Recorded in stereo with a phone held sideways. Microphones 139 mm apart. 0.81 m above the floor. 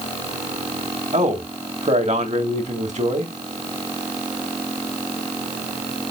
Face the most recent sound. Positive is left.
turn(degrees=-60)  # may be behind; listen again after turning